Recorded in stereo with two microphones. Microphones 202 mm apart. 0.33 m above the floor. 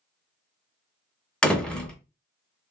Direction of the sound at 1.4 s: 5° left (ahead or behind).